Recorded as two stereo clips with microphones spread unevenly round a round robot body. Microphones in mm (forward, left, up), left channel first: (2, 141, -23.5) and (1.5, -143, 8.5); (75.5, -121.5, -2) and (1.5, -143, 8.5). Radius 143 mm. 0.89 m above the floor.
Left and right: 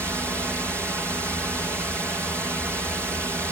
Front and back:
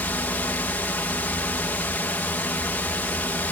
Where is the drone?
5° right.